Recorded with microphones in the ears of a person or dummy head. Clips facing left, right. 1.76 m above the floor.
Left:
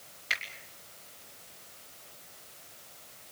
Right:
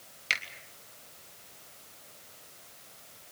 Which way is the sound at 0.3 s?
40° right (ahead or behind).